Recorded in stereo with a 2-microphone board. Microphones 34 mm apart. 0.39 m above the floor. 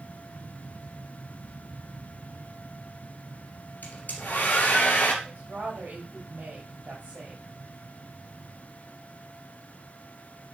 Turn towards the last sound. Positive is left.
turn(degrees=-55)  # may be behind; listen again after turning